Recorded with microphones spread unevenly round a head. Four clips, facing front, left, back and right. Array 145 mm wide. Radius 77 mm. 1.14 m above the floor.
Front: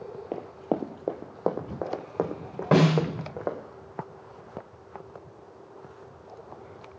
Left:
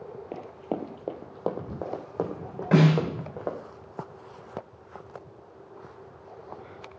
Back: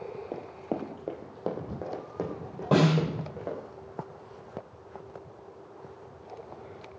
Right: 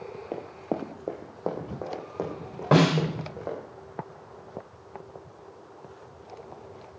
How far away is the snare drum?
About 5 m.